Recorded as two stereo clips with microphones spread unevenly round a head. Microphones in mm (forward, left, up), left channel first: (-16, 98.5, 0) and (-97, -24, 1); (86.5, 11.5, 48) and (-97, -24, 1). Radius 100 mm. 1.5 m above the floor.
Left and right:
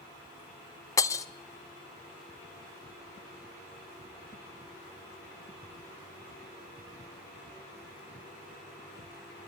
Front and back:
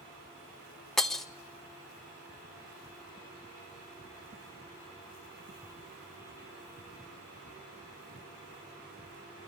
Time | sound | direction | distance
1.0 | breaking glass | 45° left | 0.6 m